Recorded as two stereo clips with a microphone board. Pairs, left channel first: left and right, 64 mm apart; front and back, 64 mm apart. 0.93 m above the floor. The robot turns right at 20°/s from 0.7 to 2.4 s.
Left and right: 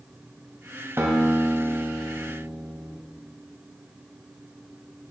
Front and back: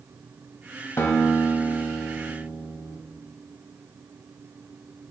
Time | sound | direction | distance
1.0 | a guitar | 45° right | 1.7 m